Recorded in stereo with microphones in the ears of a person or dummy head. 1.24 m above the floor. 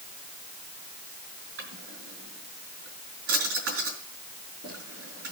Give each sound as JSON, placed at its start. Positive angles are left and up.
{"t": 1.6, "sound": "a drawer", "side_deg": -70, "distance_m": 4.0}